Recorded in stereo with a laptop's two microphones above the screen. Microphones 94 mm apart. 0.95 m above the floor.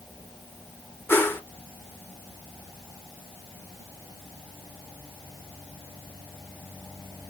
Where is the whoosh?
25° left (ahead or behind), 0.9 m.